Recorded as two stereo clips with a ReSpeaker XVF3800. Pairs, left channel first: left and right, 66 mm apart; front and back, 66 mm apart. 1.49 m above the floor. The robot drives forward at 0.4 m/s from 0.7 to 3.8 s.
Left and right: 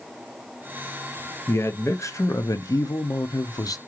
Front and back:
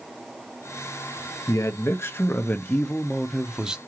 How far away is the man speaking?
About 1.0 m.